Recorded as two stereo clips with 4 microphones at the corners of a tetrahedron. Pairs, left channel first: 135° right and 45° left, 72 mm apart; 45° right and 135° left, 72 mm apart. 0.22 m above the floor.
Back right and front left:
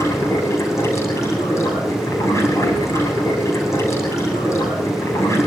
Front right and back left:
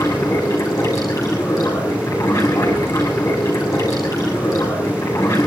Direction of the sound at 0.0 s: 85° right.